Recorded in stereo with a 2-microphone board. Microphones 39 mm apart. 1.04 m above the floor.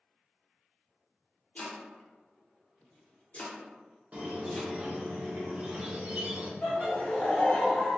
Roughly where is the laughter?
Left.